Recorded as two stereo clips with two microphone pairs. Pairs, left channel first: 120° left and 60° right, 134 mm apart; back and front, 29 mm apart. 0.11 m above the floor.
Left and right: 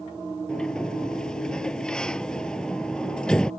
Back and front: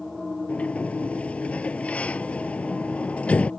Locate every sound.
0.5 s a sliding door: 160° right